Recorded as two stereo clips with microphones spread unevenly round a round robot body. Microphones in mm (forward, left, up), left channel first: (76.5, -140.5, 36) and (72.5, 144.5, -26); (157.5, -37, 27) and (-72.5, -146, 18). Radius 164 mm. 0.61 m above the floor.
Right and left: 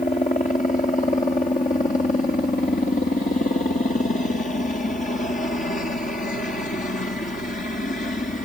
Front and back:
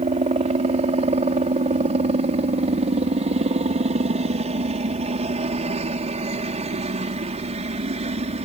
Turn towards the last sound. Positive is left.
turn(degrees=-150)